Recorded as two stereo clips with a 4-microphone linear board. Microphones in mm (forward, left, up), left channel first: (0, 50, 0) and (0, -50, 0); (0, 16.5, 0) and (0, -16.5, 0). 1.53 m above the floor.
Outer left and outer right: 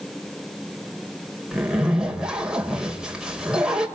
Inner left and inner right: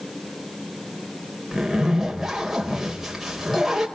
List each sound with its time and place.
1.5 s a zipper: 10° right (ahead or behind), 4 m